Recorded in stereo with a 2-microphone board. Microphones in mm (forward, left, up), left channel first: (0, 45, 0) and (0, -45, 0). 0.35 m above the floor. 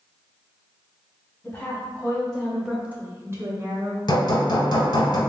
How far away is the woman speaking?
About 1.7 m.